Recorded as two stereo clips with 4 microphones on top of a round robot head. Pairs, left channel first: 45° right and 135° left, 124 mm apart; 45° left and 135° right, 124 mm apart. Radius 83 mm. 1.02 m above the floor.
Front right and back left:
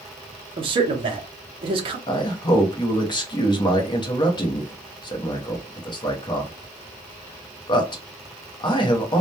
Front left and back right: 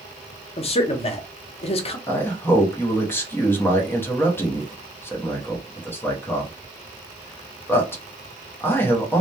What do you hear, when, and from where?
0.6 s a man speaking: 85° left, 0.6 m
2.1 s a man speaking: 15° right, 0.7 m